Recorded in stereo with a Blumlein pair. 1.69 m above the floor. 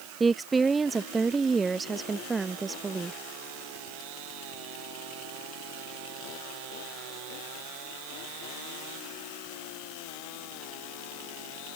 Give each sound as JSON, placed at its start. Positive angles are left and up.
{"t": 0.2, "sound": "a woman speaking", "azimuth_deg": -15}